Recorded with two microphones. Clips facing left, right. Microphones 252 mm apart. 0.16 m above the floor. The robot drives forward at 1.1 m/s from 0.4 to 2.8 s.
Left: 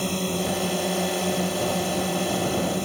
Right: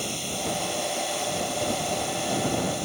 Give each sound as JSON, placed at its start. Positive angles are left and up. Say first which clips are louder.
{"t": 0.0, "sound": "a drone", "louder": "left 6 dB", "side_deg": 70}